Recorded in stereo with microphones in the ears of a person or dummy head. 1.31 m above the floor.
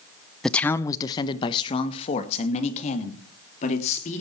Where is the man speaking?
5° left (ahead or behind), 0.6 m; by 4.2 s 40° left (ahead or behind), 3 m.